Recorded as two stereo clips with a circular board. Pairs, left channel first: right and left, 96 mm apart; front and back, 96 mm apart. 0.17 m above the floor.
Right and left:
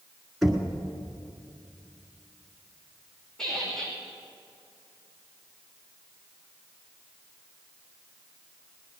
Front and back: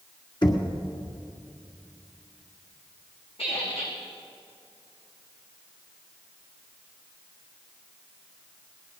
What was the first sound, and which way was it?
Knocking, 5° right.